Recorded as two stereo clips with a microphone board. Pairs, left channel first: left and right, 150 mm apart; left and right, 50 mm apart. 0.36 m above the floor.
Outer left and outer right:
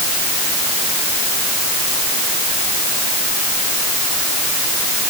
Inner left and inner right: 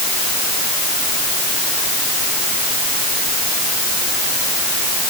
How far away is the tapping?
No tapping in this recording.